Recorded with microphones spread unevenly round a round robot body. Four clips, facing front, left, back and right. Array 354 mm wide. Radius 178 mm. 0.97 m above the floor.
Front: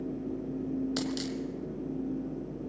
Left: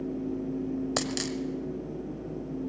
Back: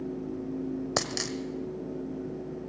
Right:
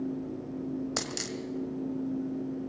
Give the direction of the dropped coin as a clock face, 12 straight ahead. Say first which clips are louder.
Left 5 dB, back 1 dB; 7 o'clock.